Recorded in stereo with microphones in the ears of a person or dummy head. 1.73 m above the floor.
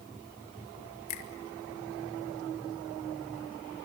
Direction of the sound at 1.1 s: 55° left (ahead or behind).